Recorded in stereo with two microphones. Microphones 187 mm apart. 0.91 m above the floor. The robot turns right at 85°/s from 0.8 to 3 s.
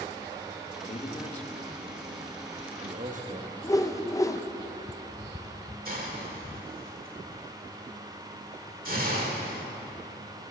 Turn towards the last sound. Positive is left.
turn(degrees=-50)  # may be behind; listen again after turning